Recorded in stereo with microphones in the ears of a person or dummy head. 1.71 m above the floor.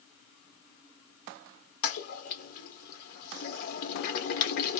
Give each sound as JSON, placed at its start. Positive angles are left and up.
{"t": 1.8, "sound": "a toilet flushing", "side_deg": 50, "distance_m": 1.0}